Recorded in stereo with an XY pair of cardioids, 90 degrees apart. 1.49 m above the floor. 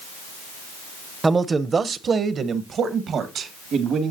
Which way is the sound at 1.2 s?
25° right.